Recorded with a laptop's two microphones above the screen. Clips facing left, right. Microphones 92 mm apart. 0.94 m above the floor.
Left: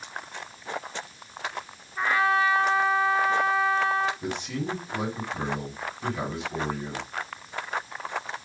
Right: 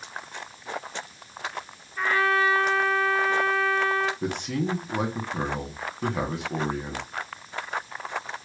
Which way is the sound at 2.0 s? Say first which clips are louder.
Even; 15° left (ahead or behind).